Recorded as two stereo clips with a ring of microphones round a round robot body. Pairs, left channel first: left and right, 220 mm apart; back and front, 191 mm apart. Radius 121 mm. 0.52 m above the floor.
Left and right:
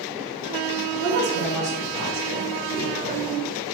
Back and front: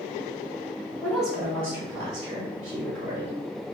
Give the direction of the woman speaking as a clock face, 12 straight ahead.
3 o'clock.